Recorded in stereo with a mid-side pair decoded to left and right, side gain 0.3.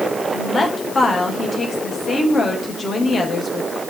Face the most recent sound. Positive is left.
turn(degrees=55)